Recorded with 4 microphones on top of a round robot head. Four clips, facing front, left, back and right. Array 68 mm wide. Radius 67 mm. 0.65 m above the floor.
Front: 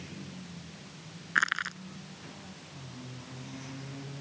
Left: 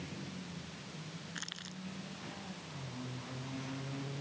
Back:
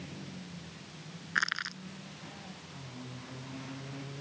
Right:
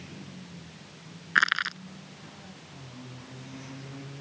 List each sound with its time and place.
1.4 s crushing: 75° right